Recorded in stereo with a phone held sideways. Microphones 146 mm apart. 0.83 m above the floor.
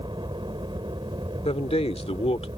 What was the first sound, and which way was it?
A helicopter, 30° right (ahead or behind).